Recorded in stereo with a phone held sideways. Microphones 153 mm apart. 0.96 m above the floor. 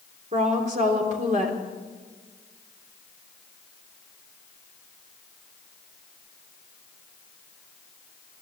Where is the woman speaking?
50° right (ahead or behind), 3 m.